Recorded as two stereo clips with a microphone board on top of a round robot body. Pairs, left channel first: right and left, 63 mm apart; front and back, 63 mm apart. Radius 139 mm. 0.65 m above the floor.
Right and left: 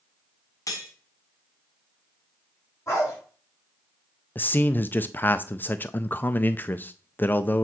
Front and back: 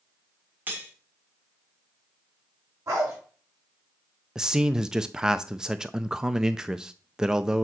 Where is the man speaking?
110° right, 0.5 m.